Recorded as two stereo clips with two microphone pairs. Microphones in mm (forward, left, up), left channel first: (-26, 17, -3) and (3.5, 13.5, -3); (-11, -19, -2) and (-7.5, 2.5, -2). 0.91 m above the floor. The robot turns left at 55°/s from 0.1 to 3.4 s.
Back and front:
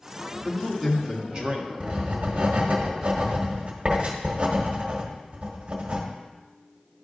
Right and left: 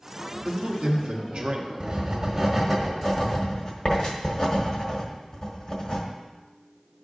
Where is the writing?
40° left, 1.4 m; by 6.0 s 50° right, 1.4 m.